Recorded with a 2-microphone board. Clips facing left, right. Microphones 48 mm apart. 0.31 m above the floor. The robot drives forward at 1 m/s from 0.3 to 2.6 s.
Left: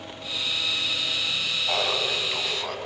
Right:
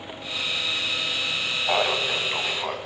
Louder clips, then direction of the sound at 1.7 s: Right 4 dB; 25° right (ahead or behind).